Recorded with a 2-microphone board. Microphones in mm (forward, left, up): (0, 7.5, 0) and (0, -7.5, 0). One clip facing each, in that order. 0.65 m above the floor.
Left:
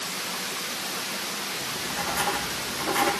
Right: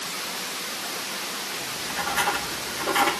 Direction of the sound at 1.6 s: 35° right (ahead or behind).